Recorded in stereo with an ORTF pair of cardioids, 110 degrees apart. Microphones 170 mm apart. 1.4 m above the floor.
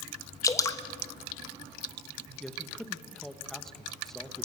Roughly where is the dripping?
Ahead.